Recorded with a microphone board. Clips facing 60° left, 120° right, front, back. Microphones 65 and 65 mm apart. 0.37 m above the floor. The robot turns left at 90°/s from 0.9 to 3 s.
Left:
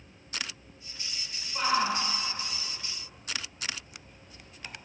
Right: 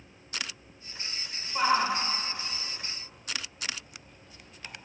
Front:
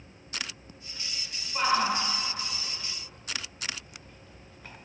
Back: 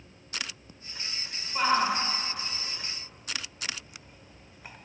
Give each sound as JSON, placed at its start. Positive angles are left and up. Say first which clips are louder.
{"t": 1.6, "sound": "a shout", "louder": "right 2 dB, back 1 dB", "azimuth_deg": -90, "distance_m": 0.9}